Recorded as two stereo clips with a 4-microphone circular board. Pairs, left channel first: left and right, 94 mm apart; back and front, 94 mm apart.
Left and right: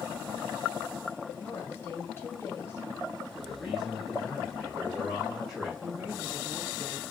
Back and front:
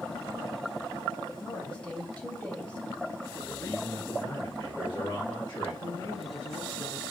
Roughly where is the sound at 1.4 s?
Behind left.